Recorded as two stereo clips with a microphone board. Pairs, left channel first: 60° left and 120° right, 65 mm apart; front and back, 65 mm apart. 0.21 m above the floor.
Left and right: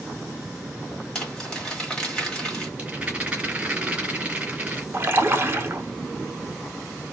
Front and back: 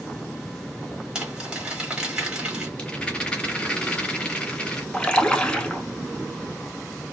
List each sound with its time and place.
1.1 s crumpling: 130° left, 1.6 m
2.8 s a rattle: 65° right, 1.6 m
4.9 s a splash: 75° right, 0.6 m